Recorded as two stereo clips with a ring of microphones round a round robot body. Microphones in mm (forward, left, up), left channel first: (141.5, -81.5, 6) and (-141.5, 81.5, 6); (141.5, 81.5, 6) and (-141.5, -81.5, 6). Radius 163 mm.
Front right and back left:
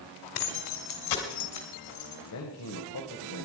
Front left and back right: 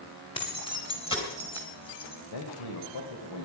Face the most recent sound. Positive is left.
turn(degrees=10)